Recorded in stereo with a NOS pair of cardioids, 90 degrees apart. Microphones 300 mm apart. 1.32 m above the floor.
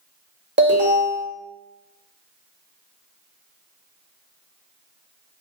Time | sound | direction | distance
0.6 | an alarm | 35° right | 1.1 m